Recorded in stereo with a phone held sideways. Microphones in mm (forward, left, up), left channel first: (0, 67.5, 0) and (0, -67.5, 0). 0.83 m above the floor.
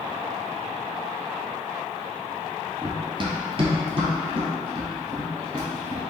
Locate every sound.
2.8 s running footsteps: 30° right (ahead or behind), 0.9 m; by 6.0 s 35° right (ahead or behind), 3.5 m